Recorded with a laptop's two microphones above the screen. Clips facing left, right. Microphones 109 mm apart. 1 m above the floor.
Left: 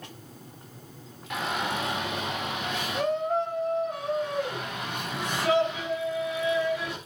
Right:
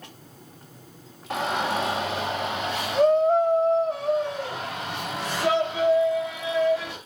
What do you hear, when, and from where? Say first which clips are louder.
1.3 s a shout: right 4 dB; 35° right (ahead or behind), 2.5 m; by 7.0 s 30° right (ahead or behind), 6 m